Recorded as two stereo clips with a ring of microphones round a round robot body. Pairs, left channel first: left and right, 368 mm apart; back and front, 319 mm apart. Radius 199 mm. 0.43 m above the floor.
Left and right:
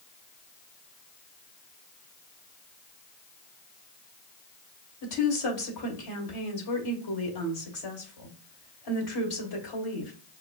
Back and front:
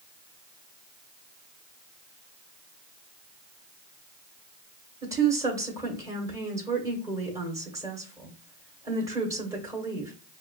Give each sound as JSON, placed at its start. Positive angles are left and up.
{"t": 5.0, "sound": "a woman speaking", "azimuth_deg": 80, "distance_m": 2.5}